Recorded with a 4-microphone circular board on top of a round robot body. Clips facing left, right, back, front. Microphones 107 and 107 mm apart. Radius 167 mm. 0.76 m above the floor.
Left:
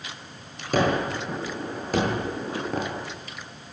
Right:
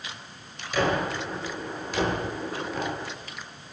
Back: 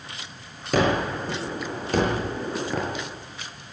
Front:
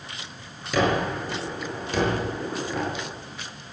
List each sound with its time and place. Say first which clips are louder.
0.7 s a gunshot: left 2 dB, back 1 dB; 135° left, 8 m